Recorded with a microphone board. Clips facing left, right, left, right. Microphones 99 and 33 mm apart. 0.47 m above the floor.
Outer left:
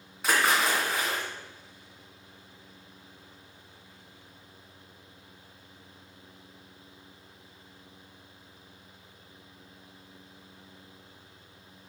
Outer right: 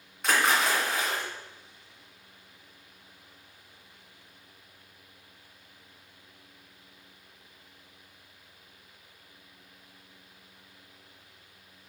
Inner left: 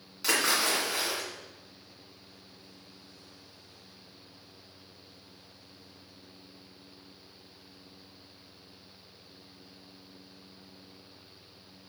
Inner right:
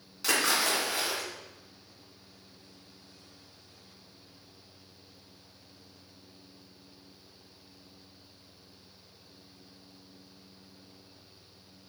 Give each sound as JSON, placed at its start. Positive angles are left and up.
{"t": 0.2, "sound": "a splash", "side_deg": 5, "distance_m": 2.5}